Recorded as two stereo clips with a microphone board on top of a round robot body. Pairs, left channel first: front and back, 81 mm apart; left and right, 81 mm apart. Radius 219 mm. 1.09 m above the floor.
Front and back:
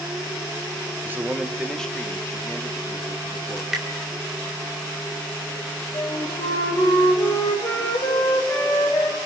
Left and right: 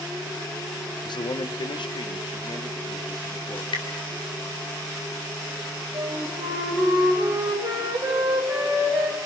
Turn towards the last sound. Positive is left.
turn(degrees=-35)